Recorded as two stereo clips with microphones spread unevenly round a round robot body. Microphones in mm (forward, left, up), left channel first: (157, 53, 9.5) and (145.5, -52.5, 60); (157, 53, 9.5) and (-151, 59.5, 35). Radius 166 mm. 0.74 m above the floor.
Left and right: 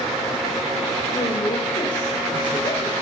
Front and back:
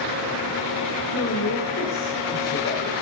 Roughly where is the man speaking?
Ahead left.